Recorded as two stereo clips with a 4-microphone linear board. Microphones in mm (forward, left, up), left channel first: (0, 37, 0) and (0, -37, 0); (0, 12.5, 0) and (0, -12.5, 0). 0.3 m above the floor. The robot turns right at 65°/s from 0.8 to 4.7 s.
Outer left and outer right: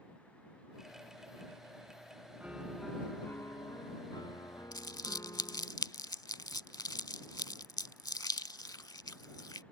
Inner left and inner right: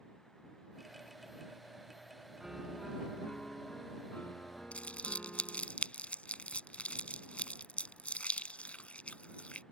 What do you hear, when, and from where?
2.4 s a piano: 25° right; by 5.7 s 125° left
4.7 s crumpling: 65° left (ahead or behind)